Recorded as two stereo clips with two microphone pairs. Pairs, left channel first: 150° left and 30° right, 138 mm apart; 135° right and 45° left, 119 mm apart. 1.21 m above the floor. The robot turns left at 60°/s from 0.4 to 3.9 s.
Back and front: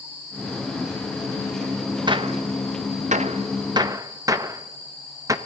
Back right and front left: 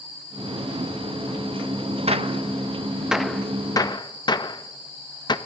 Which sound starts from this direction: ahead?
A gunshot, at 2.1 s.